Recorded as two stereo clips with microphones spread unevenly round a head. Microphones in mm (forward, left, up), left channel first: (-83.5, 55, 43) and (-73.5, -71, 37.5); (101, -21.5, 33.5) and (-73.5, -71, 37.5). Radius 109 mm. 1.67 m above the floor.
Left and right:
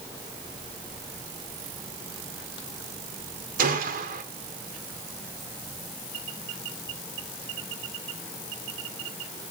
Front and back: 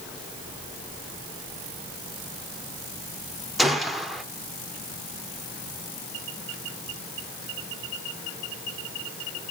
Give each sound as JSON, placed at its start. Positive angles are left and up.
{"t": 3.6, "sound": "a gunshot", "azimuth_deg": -75, "distance_m": 1.2}